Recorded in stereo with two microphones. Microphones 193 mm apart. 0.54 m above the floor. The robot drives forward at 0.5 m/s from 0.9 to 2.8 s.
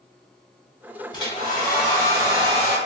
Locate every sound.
1.1 s a hair dryer: 25° left (ahead or behind), 1.0 m; by 2.8 s 15° left (ahead or behind), 1.4 m